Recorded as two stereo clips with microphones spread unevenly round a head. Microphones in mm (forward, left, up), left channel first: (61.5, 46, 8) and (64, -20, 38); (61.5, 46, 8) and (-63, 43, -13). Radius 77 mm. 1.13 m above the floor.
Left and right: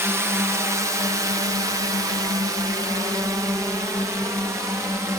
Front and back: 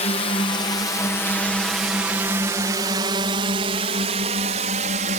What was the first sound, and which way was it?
A drone, 25° right.